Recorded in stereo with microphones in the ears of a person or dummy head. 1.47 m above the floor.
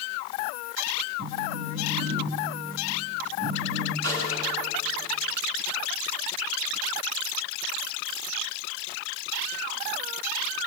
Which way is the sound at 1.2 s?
50° right (ahead or behind).